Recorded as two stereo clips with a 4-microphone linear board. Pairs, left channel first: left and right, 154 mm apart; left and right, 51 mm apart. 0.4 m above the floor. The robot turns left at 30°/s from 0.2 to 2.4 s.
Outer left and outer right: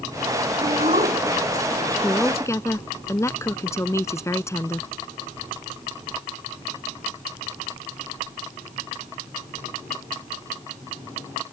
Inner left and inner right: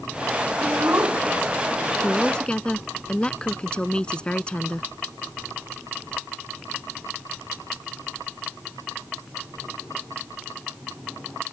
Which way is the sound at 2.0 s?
10° left (ahead or behind).